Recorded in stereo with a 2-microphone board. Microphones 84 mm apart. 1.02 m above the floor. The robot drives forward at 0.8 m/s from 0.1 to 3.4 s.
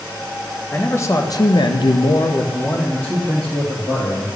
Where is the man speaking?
25° left (ahead or behind), 1.0 m; by 4.3 s 20° left (ahead or behind), 1.4 m.